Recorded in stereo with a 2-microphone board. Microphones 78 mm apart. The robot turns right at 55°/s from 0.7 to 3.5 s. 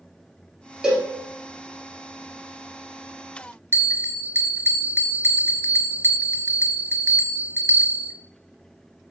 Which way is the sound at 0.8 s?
10° right (ahead or behind).